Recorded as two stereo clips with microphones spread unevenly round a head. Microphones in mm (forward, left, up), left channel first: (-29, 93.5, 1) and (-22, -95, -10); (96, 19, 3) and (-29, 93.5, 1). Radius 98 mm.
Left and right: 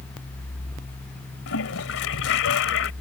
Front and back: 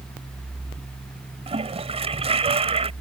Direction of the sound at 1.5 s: 100° left.